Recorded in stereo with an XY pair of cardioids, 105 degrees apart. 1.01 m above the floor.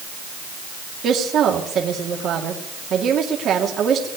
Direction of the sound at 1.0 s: 60° right.